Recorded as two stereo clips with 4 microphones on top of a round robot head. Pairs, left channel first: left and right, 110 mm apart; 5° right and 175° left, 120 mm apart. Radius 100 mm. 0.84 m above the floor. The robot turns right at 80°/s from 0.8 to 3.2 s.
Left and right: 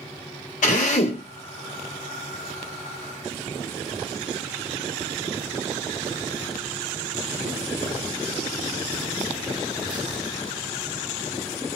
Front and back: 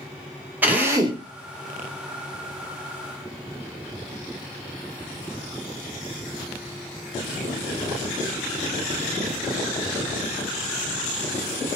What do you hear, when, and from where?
0.6 s a drill: 100° left, 1.1 m; by 1.2 s 135° left, 1.1 m